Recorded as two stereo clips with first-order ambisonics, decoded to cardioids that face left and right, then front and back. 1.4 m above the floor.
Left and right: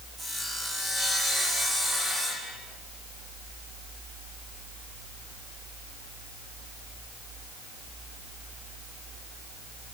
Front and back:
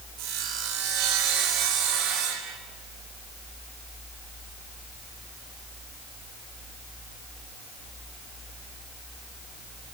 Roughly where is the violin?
I don't hear a violin.